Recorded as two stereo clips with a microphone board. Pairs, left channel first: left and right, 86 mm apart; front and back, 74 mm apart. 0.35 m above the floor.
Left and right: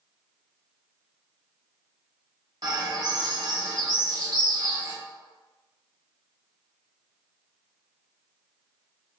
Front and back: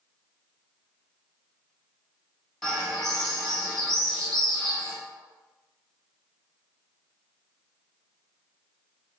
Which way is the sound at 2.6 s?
85° right.